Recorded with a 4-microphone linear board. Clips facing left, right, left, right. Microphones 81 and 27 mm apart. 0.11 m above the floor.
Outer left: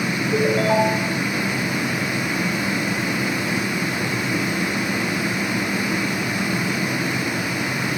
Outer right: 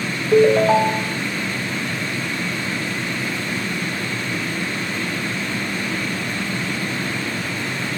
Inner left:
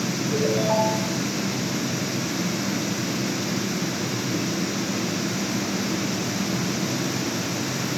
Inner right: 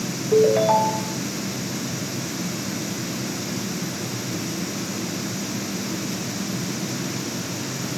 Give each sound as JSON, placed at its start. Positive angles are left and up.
{"t": 0.3, "sound": "a ringtone", "side_deg": -85, "distance_m": 3.5}